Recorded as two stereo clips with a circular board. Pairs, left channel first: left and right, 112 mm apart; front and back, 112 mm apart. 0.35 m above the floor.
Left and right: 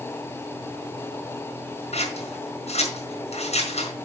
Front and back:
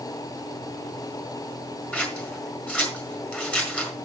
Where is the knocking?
I don't hear knocking.